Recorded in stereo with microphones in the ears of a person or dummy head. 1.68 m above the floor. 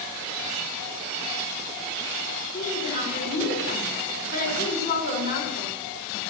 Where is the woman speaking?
55° left (ahead or behind), 4.5 m.